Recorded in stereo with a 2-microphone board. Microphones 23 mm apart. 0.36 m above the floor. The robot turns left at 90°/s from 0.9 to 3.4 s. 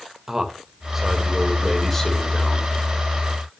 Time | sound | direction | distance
0.3 | a man speaking | 10° right (ahead or behind) | 1.6 m